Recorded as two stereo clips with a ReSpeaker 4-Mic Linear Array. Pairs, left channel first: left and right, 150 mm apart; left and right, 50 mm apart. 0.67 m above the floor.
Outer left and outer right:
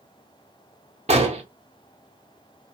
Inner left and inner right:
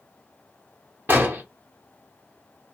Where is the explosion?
45° right (ahead or behind), 0.9 m.